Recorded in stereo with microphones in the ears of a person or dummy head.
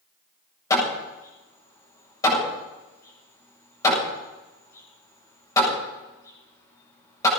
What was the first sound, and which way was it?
Hammering, 15° left (ahead or behind).